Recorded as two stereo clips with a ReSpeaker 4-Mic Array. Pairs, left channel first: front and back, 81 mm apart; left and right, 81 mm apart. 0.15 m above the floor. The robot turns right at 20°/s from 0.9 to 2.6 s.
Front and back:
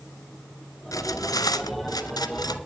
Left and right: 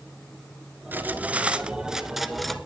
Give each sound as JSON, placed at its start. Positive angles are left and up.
{"t": 0.9, "sound": "cutlery clinking", "azimuth_deg": -30, "distance_m": 1.4}